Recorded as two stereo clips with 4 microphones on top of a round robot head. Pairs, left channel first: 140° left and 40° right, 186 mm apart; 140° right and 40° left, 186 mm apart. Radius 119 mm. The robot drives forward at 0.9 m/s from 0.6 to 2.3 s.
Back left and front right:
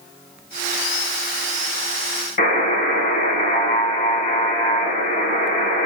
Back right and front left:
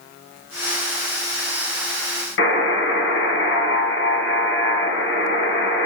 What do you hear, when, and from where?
2.4 s a buzzer: 165° right, 1.3 m